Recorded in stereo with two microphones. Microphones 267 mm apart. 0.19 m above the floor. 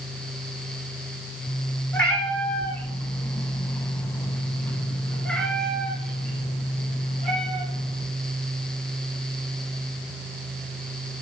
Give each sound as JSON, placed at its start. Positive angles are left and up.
{"t": 1.9, "sound": "a cat meowing", "side_deg": 5, "distance_m": 1.5}